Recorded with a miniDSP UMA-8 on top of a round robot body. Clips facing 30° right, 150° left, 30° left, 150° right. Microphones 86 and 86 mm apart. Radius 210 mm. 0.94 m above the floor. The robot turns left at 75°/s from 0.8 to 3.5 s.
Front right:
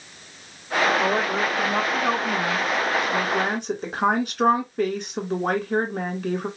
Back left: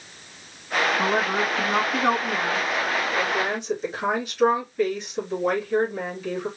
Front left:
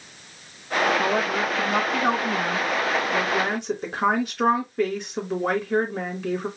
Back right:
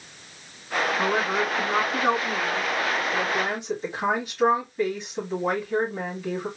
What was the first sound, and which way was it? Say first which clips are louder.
A woman speaking: even, front left 1 dB; 170° right.